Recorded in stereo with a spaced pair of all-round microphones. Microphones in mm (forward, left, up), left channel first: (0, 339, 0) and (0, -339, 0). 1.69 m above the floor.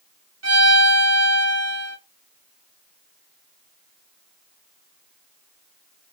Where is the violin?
25° right (ahead or behind), 0.7 m.